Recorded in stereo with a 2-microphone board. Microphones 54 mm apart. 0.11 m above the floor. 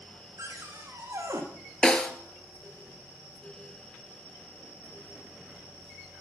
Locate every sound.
0.4 s a cupboard door: 80° right, 3 m
1.8 s a snare drum: 15° left (ahead or behind), 1.5 m